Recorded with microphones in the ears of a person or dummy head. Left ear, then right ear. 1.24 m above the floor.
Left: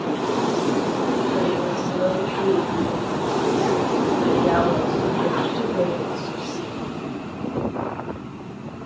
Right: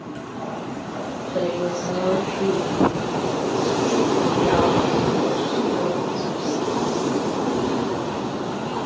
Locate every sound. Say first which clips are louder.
1.3 s a woman speaking: left 1 dB; 50° right (ahead or behind), 6.5 m; by 6.9 s 35° right (ahead or behind), 9.5 m